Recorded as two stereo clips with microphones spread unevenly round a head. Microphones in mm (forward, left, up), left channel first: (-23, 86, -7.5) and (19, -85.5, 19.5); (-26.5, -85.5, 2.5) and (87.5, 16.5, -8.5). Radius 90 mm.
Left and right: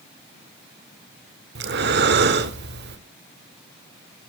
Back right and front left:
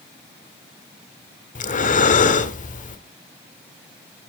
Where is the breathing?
105° right, 1.7 m.